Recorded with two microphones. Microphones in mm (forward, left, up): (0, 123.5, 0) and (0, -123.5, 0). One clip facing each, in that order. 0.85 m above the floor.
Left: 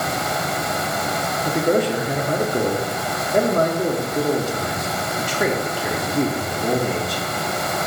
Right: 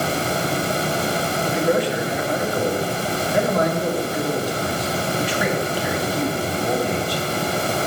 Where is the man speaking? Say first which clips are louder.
Left 2 dB; 50° left (ahead or behind), 1.5 m.